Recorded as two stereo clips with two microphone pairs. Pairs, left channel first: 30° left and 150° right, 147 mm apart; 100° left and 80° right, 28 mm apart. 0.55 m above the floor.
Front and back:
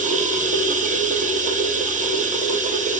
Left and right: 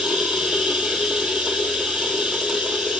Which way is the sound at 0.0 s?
125° right.